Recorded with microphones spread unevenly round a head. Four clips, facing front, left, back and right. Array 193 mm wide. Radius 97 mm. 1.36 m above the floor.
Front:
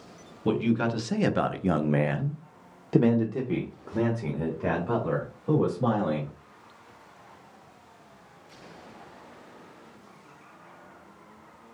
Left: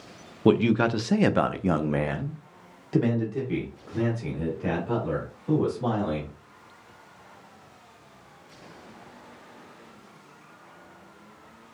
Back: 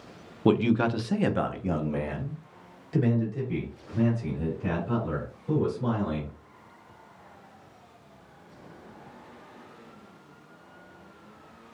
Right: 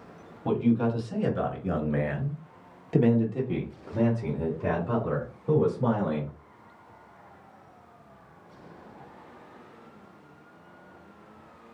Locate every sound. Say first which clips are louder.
0.5 s a man speaking: left 4 dB, back 2 dB; 105° left, 0.8 m; by 6.3 s 20° right, 3 m